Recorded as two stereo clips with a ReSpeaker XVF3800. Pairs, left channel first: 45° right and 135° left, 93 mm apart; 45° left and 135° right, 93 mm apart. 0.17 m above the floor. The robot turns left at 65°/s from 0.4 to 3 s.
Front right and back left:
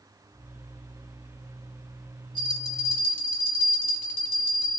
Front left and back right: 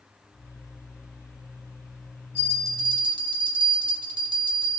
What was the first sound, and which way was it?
A bell, 70° right.